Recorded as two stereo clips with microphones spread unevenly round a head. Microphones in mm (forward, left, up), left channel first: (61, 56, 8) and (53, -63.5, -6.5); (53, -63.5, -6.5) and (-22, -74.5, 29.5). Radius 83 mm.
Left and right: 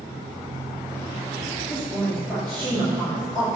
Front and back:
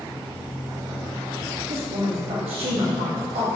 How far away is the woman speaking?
About 2.5 m.